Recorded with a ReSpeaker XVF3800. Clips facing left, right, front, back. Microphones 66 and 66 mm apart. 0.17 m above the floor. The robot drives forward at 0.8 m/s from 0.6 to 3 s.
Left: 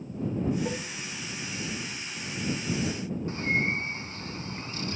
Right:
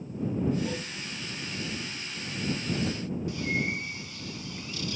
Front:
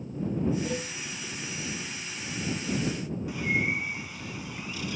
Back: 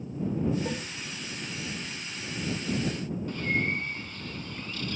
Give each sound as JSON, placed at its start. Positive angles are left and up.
{"t": 0.7, "sound": "dishes clattering", "azimuth_deg": 130, "distance_m": 6.5}
{"t": 3.3, "sound": "a bird", "azimuth_deg": 70, "distance_m": 0.7}